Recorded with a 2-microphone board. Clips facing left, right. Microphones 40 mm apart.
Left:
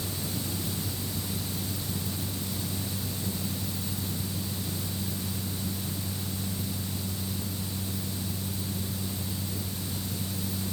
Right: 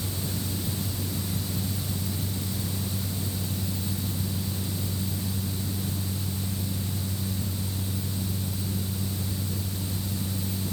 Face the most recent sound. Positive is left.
No sound to turn to.